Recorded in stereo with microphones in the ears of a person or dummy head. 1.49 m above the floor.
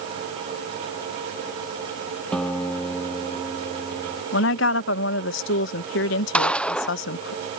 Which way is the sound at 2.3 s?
5° left (ahead or behind).